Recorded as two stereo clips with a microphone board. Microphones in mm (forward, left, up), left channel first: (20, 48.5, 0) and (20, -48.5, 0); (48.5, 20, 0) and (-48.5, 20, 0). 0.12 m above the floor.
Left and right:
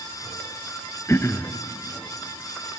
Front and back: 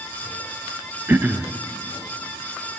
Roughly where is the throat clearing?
Behind left.